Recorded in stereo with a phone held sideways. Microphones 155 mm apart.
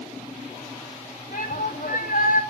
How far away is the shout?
About 2.5 m.